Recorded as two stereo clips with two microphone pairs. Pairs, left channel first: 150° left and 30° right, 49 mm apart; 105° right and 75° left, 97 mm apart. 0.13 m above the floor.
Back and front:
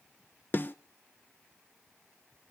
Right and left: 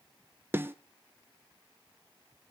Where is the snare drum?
135° left, 0.8 m.